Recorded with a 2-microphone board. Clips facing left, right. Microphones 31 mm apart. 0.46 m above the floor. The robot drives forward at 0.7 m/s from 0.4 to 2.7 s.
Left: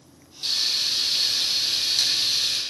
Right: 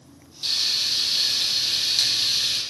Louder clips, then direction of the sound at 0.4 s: Right 1 dB; 10° right (ahead or behind).